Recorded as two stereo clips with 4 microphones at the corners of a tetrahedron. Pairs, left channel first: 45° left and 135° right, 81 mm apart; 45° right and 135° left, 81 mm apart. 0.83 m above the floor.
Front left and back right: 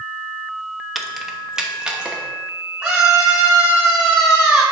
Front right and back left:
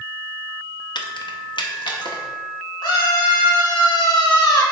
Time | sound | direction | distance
0.9 | keys jangling | 45° right | 0.7 m
2.8 | a scream | 60° right | 2.5 m